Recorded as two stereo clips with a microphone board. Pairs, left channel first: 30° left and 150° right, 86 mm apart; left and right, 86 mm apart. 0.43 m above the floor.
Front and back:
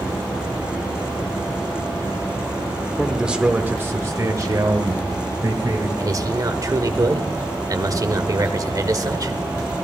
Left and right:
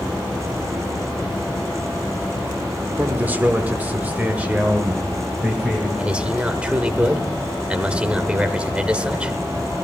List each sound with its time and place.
3.0 s a man speaking: 60° right, 1.0 m; by 5.9 s 165° right, 2 m
6.0 s a man speaking: 160° right, 1.1 m